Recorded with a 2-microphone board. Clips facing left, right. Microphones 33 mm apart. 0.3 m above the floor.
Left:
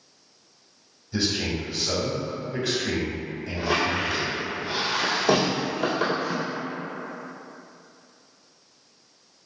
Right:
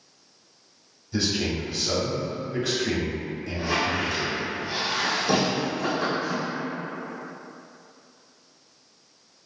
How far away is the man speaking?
About 1.4 m.